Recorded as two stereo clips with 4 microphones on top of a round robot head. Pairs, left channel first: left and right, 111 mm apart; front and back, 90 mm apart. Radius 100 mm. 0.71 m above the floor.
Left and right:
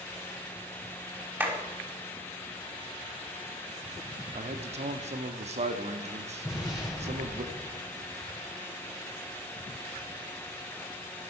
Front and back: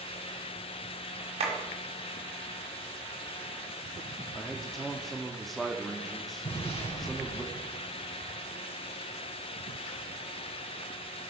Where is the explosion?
Straight ahead, 5 m.